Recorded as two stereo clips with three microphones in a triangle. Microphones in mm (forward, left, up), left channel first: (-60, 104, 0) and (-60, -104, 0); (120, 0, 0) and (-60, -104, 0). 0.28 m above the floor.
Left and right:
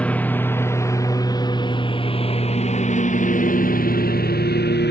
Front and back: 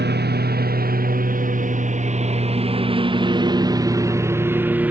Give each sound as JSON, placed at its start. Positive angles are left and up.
{"t": 0.0, "sound": "a lawn mower", "azimuth_deg": 175}